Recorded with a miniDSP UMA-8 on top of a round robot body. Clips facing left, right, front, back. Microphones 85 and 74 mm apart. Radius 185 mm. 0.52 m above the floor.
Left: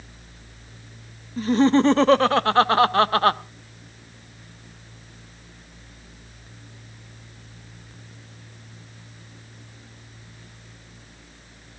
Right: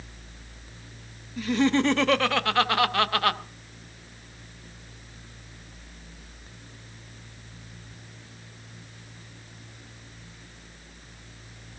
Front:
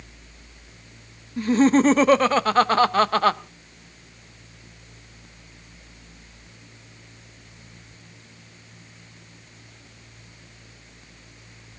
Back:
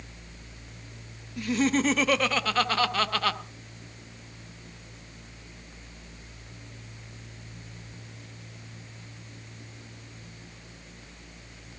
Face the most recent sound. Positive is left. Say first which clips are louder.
# left 5 dB, front 8 dB
turn(degrees=45)